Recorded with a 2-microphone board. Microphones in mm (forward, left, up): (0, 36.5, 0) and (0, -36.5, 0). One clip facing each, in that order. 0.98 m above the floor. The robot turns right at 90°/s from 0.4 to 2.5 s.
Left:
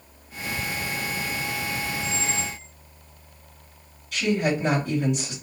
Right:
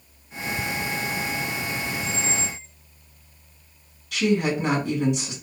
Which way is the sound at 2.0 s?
85° right.